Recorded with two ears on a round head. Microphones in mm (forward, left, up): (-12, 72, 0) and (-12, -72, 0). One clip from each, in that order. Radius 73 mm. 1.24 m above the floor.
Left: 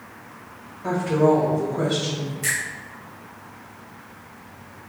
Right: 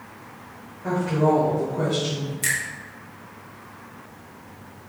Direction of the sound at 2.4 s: 25° right (ahead or behind).